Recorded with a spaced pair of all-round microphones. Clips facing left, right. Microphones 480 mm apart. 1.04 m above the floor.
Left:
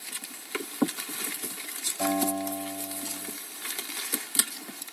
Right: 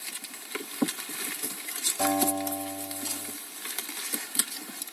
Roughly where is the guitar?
Right.